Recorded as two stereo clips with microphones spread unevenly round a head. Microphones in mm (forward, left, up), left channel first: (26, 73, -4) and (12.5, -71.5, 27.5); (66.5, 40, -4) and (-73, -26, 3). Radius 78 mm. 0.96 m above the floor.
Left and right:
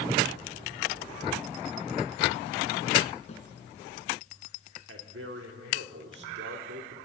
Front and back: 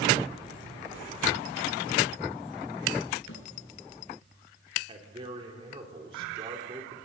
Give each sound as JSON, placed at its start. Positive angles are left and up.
{"t": 3.3, "sound": "a snare drum", "azimuth_deg": 35, "distance_m": 5.0}
{"t": 4.9, "sound": "a man speaking", "azimuth_deg": -95, "distance_m": 3.5}